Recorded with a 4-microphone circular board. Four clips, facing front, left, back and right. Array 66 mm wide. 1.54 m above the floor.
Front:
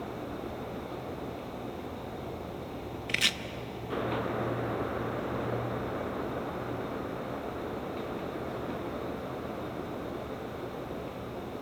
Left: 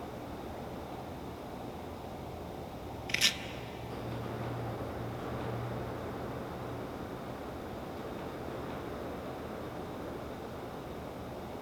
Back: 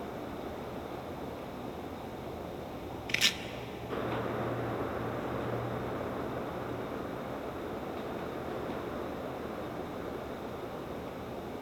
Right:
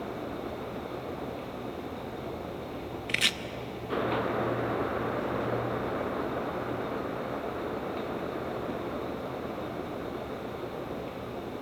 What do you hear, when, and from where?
3.1 s chopping: 70° right, 0.7 m